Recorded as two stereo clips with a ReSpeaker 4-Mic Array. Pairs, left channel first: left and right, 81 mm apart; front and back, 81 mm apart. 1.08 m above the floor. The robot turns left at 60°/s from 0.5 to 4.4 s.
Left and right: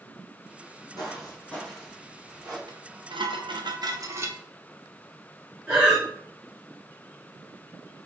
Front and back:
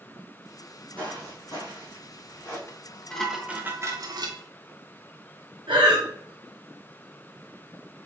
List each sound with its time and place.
1.0 s footsteps: 75° left, 1.8 m; by 2.6 s 60° right, 2 m
2.7 s dishes clattering: 55° right, 0.7 m; by 4.4 s 155° right, 0.7 m
5.7 s breathing: 170° right, 2 m